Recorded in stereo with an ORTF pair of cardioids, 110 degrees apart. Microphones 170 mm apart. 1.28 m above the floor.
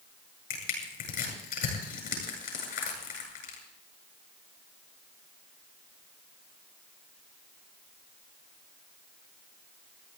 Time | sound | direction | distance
0.5 | crushing | 60° left | 8 m